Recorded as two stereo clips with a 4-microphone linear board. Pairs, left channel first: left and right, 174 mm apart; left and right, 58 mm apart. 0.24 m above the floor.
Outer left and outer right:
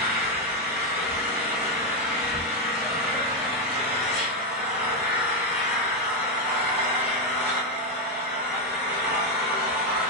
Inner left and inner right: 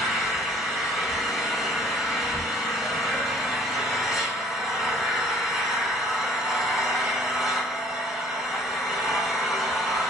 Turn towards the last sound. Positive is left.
turn(degrees=-10)  # may be behind; listen again after turning